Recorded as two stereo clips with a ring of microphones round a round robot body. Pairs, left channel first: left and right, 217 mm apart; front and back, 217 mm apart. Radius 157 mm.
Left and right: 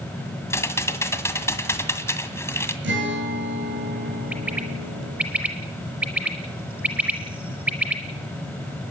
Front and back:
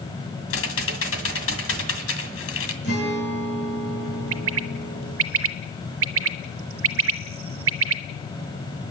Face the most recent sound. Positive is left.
turn(degrees=-175)